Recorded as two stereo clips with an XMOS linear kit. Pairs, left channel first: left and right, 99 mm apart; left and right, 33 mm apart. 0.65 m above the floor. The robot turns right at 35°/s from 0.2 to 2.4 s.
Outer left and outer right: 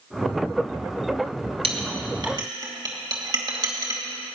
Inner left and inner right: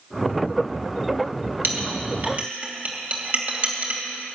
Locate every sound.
1.6 s a clink: 70° right (ahead or behind), 2.5 m; by 4.0 s 45° right (ahead or behind), 2.5 m